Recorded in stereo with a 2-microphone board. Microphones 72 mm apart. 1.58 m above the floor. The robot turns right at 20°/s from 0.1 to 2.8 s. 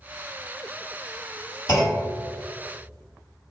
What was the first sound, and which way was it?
A clunk, 55° left (ahead or behind).